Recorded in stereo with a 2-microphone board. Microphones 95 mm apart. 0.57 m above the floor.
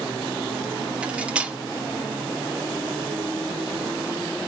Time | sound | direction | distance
1.0 | cutlery clinking | 10° right (ahead or behind) | 0.5 m